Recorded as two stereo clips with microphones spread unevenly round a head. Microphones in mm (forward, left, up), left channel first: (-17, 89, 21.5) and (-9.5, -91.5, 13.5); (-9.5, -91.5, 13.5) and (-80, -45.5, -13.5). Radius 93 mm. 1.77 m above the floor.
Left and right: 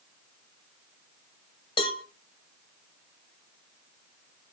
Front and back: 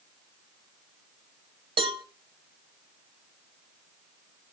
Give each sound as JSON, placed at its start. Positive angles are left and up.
{"t": 1.8, "sound": "a cowbell", "azimuth_deg": 135, "distance_m": 1.0}